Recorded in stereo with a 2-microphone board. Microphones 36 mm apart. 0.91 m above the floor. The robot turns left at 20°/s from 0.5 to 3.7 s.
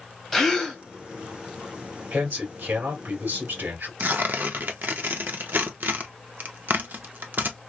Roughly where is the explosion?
No explosion in this recording.